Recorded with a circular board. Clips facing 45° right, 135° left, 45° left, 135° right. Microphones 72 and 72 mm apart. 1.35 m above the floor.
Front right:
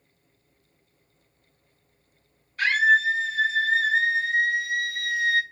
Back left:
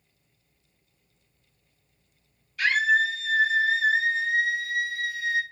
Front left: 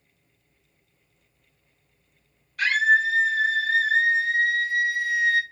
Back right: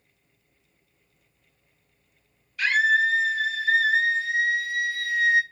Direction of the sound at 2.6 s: 10° left.